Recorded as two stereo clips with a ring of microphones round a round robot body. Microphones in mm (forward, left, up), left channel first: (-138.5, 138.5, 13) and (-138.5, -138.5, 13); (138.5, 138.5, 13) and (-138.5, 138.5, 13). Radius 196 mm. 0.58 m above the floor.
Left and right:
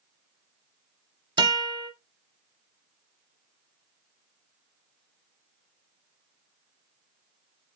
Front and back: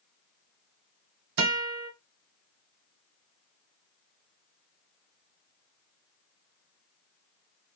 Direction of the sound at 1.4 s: 165° right.